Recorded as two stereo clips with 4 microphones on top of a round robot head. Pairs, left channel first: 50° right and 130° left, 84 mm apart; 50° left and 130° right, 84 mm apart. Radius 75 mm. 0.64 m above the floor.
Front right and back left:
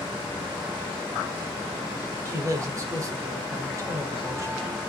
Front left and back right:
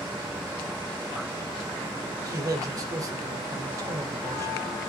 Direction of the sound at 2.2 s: 175° right.